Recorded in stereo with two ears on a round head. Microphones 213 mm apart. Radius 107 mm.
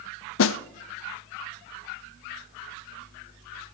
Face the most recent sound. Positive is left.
turn(degrees=55)  # may be behind; listen again after turning